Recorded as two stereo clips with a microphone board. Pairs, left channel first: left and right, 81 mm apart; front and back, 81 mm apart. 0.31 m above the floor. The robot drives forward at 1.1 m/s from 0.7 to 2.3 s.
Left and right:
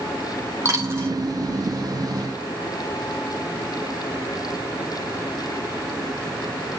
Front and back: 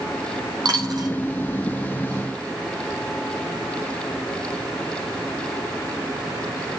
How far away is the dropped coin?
About 4.5 m.